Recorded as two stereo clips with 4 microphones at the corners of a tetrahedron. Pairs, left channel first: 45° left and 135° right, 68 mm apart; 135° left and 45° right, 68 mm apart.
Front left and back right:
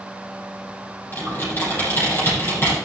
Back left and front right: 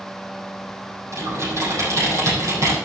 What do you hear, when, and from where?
1.1 s typing on a keyboard: 5° right, 7.5 m